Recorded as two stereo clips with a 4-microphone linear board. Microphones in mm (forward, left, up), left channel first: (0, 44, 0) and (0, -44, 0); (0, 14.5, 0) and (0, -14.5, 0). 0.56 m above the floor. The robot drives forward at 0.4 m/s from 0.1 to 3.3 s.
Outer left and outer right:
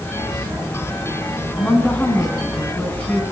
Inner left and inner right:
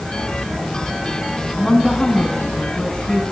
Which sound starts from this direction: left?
A woman speaking, at 1.6 s.